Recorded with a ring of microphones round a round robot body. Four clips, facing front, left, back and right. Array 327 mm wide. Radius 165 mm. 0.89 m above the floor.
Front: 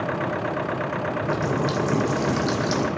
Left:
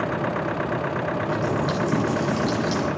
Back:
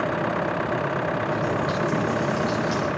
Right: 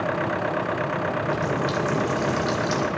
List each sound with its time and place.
1.2 s a running tap: 15° right, 2.5 m